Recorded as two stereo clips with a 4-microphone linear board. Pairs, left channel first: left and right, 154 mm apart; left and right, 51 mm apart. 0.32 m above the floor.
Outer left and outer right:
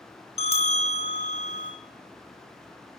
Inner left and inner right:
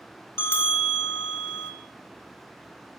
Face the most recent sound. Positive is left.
turn(degrees=45)  # may be behind; listen again after turning